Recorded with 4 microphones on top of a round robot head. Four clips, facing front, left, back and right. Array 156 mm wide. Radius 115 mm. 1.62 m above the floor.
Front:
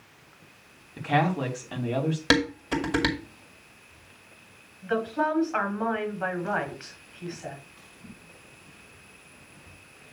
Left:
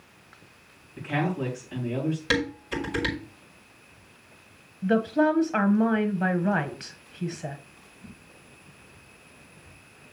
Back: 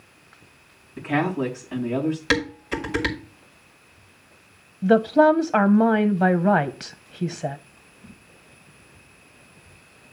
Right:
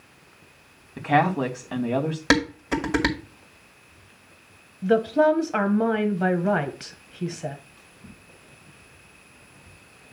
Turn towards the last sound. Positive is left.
turn(degrees=-170)